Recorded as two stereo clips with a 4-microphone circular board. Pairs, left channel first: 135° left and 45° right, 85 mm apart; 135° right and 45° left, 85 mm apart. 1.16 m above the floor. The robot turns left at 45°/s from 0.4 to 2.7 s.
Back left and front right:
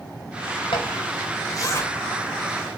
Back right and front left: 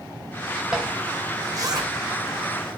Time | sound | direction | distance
0.7 | a zipper | 130° left | 2.5 m